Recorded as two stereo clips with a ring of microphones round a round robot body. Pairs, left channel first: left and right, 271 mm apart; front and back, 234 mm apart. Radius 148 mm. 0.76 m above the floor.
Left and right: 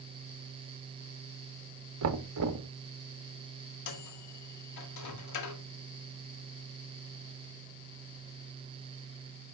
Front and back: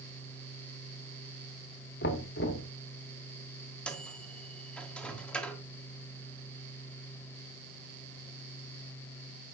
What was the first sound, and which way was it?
Knocking, 55° right.